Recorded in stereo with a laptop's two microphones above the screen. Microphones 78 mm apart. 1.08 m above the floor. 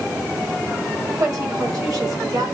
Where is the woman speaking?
60° right (ahead or behind), 4 m.